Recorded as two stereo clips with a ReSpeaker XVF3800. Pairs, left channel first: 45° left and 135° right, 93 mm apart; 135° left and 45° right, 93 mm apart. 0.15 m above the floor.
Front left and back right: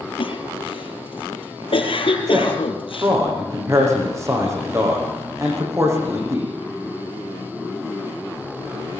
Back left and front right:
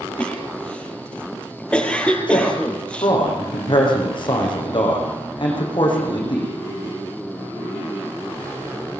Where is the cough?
55° left, 4.5 m.